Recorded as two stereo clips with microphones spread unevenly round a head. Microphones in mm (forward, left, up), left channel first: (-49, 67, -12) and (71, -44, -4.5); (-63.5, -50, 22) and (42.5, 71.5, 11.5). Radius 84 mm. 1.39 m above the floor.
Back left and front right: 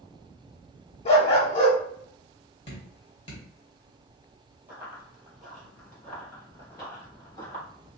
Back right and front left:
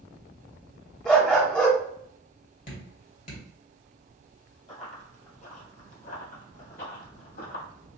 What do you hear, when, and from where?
1.1 s a dog barking: 155° left, 1.0 m
2.7 s dripping: 165° right, 1.9 m
4.7 s running footsteps: 110° right, 1.8 m; by 7.6 s 155° right, 2.5 m